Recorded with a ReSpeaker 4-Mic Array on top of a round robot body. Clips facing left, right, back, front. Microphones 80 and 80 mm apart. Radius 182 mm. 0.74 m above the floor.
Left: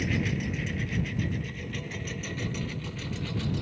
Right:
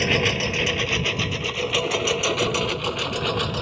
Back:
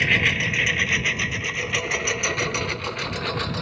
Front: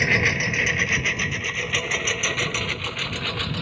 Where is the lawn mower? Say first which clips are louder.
Right 7 dB, front 1 dB; 75° right; by 3.6 s 105° right.